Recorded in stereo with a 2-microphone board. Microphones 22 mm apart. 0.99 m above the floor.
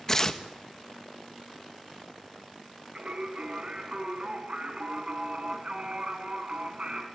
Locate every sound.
0.1 s tearing paper: 25° left (ahead or behind), 1.2 m
3.0 s singing: 45° right (ahead or behind), 3.5 m